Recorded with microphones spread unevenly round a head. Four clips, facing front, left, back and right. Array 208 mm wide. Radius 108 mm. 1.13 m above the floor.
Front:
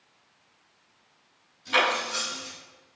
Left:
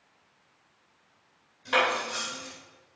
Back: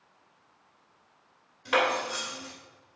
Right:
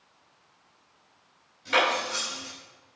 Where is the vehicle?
I don't hear a vehicle.